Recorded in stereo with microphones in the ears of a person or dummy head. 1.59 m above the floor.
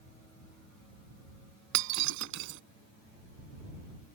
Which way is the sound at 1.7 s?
70° right (ahead or behind).